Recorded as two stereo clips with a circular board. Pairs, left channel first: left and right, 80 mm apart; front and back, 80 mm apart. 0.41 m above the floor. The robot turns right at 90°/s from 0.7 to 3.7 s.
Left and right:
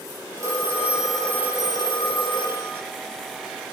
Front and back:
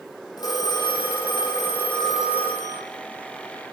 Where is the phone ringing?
40° right, 9.5 m; by 2.8 s 150° left, 9.5 m.